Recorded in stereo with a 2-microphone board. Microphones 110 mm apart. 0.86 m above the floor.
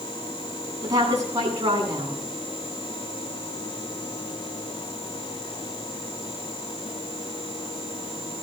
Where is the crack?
I don't hear a crack.